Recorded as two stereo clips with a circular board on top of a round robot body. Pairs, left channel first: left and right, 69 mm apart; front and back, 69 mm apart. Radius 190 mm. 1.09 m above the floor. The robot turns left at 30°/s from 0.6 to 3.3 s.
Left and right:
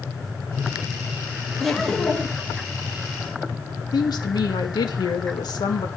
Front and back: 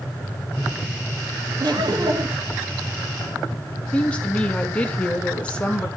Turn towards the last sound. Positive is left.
turn(degrees=75)